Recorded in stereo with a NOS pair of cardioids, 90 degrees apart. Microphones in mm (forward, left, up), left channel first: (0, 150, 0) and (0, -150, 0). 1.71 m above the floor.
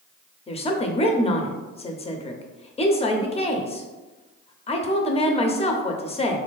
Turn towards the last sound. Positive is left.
turn(degrees=20)